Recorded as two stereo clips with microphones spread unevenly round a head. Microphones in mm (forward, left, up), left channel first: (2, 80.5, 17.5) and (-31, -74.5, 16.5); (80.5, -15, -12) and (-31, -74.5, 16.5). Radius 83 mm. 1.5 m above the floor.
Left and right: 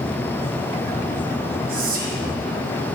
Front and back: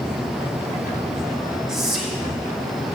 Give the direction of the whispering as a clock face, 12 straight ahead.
2 o'clock.